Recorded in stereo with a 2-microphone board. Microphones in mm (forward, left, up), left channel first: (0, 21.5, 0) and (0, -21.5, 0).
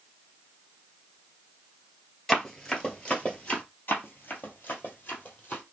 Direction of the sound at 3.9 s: 50° left (ahead or behind).